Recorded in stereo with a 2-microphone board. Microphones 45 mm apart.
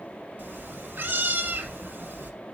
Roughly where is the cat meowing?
Right.